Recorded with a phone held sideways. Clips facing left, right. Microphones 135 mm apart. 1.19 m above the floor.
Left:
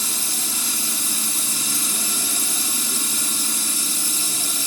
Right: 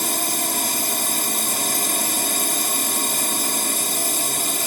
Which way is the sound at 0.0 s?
60° right (ahead or behind).